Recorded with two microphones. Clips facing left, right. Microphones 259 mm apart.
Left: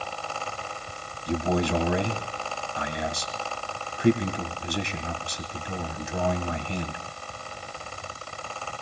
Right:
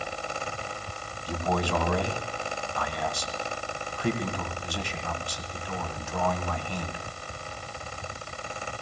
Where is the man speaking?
20° left (ahead or behind), 1.9 m.